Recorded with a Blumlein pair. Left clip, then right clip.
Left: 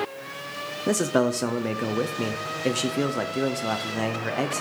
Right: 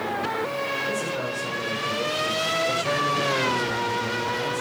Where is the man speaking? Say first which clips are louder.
Left 4 dB; 40° left, 0.8 m.